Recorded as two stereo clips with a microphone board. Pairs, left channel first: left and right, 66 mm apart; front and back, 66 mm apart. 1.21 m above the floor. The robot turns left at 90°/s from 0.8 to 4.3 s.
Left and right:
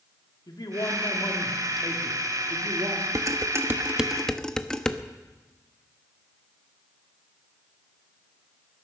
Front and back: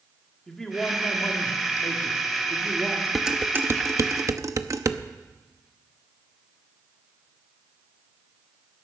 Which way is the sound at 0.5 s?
85° left.